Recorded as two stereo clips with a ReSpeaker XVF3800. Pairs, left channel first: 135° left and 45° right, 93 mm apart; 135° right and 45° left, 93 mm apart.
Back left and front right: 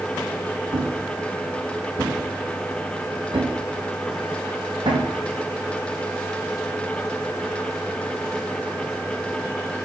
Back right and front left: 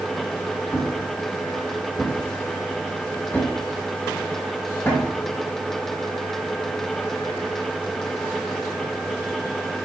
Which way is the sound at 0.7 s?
70° right.